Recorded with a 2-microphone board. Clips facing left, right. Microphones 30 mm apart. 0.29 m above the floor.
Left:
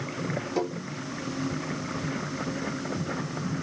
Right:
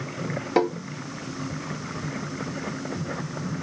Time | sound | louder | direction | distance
0.6 | tapping | right 9 dB | 60° right (ahead or behind) | 0.5 m